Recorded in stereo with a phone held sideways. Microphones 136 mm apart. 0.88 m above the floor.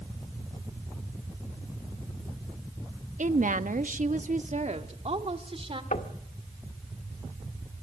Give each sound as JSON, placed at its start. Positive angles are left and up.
{"t": 3.2, "sound": "a woman speaking", "side_deg": -65, "distance_m": 1.0}
{"t": 5.9, "sound": "knocking", "side_deg": 65, "distance_m": 1.7}